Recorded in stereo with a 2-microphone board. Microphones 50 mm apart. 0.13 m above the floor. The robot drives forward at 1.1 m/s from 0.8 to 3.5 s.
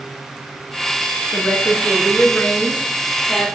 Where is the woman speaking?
40° left (ahead or behind), 1.9 m; by 3.5 s 20° left (ahead or behind), 3.5 m.